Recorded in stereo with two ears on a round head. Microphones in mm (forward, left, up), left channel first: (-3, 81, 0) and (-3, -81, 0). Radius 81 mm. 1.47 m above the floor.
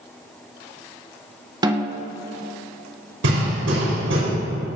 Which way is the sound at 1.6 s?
20° right (ahead or behind).